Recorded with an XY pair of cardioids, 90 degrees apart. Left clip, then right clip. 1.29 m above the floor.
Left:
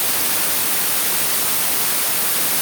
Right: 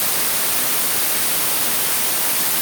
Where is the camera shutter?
No camera shutter in this recording.